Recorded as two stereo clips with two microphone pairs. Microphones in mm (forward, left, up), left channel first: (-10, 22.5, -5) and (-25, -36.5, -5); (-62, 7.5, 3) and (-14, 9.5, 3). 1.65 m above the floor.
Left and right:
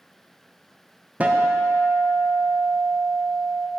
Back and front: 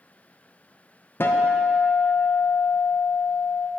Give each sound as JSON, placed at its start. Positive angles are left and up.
{"t": 1.2, "sound": "a guitar", "azimuth_deg": -165, "distance_m": 1.0}